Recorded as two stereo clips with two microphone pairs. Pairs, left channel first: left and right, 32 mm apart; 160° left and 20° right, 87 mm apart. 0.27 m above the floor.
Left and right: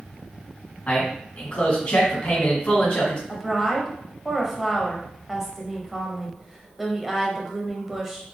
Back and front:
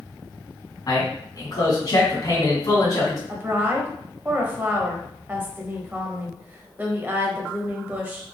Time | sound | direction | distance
0.9 | a man speaking | 125° left | 2 m
3.3 | a woman speaking | 15° right | 0.9 m